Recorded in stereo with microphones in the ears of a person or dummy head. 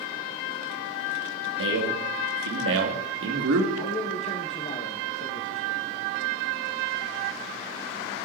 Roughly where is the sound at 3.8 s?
Left.